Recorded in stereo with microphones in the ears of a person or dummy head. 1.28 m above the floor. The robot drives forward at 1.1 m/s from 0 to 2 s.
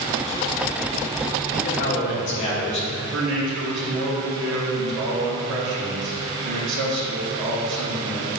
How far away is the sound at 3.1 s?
About 2 m.